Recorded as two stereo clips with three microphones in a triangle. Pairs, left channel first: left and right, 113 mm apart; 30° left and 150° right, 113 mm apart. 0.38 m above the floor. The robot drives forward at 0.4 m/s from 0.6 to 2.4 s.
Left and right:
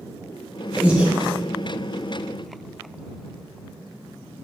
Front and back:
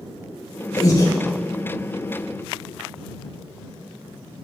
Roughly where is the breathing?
Ahead.